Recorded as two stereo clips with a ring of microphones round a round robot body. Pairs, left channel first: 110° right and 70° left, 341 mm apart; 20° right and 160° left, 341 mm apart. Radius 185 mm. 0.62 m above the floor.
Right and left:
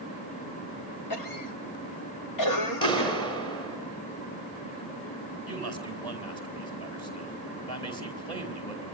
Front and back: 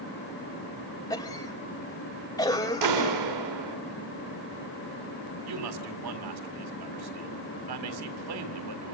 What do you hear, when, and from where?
1.1 s a cough: 100° right, 2.5 m
2.8 s a clap: 170° left, 6.5 m
5.5 s a man speaking: 170° left, 4.5 m